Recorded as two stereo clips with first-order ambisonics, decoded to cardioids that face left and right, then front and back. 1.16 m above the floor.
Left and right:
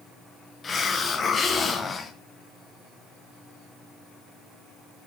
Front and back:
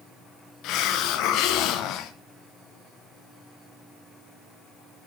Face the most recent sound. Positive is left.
turn(degrees=25)